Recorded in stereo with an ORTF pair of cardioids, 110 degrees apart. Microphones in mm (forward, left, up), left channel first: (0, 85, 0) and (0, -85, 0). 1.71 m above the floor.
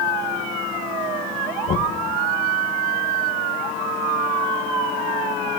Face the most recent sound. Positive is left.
turn(degrees=50)